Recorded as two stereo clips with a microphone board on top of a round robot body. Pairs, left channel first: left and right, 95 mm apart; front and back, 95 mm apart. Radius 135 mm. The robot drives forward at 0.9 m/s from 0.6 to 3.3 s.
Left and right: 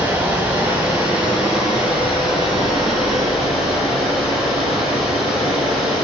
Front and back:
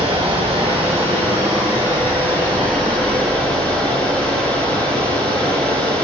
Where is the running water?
160° right, 2.5 m; by 6.0 s 170° right, 5 m.